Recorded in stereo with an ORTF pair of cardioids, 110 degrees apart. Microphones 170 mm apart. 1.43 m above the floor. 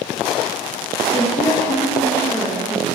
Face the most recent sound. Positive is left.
turn(degrees=20)